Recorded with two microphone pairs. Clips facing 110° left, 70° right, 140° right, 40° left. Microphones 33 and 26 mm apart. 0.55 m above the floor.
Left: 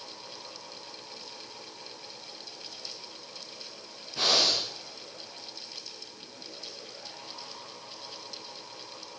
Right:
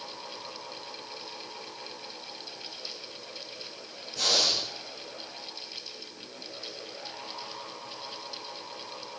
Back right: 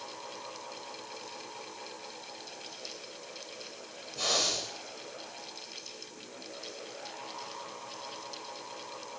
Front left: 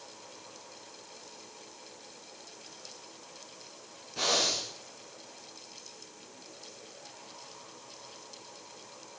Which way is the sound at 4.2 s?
55° left.